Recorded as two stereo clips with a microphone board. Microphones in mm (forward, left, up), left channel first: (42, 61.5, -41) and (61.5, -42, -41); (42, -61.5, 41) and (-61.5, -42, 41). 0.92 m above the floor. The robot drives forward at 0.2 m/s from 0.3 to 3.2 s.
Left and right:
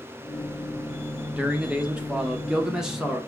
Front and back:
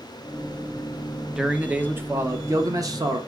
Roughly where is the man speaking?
Behind right.